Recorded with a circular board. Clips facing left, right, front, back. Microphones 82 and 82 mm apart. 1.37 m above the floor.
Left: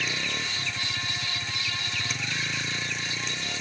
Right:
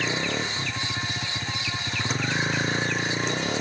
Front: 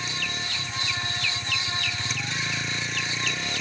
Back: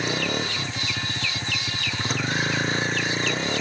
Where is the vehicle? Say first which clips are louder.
Right 5 dB, back 7 dB; 145° right; by 3.6 s 130° right.